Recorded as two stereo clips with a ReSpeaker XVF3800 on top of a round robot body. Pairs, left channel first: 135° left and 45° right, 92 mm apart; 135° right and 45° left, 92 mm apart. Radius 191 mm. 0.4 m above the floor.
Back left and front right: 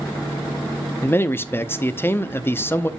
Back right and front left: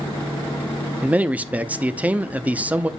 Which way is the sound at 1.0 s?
100° left.